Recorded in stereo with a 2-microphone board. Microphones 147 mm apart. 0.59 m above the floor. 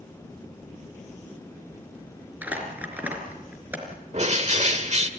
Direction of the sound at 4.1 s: 50° right (ahead or behind).